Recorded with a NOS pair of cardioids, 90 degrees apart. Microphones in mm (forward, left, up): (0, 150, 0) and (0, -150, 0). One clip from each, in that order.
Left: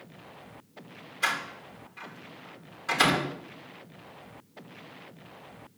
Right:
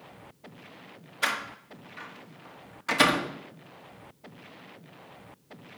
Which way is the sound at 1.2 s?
35° right.